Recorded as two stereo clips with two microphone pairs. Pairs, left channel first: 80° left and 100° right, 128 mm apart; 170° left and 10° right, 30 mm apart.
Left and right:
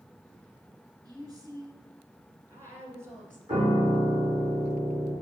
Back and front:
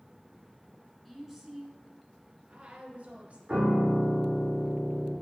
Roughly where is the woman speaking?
Right.